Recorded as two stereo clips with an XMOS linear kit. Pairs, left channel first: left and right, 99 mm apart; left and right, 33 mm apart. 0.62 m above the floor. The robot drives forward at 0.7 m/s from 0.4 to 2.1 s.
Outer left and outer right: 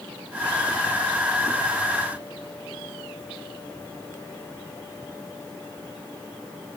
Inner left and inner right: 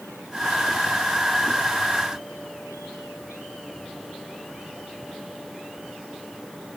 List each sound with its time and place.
Only background noise.